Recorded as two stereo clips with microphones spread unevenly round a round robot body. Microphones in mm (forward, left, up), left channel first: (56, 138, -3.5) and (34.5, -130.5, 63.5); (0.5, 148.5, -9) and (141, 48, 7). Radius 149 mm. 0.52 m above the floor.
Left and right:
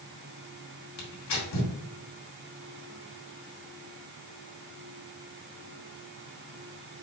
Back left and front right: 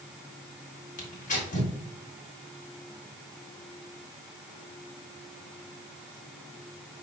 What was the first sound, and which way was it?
Tearing paper, 105° left.